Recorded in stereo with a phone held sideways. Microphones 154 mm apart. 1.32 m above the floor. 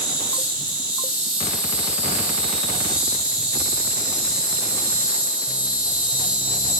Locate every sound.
0.0 s an insect: 10° right (ahead or behind), 3.5 m